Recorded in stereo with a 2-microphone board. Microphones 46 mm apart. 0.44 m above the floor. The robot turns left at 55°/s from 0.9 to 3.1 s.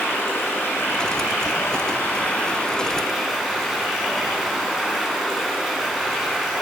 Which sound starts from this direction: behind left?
Running water, at 0.0 s.